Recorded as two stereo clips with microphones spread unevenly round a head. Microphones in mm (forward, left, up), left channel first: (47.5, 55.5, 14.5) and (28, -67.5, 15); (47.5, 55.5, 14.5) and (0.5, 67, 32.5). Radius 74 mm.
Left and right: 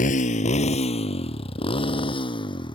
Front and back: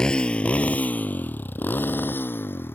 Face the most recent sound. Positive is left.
turn(degrees=30)